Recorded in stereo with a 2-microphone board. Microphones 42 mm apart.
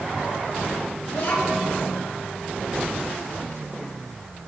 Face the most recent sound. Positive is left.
turn(degrees=70)  # may be behind; listen again after turning